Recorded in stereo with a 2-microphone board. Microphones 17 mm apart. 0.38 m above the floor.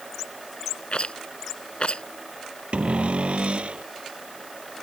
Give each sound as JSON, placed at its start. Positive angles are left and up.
{"t": 0.9, "sound": "a rattle", "side_deg": 60}
{"t": 2.7, "sound": "a cupboard door", "side_deg": -80}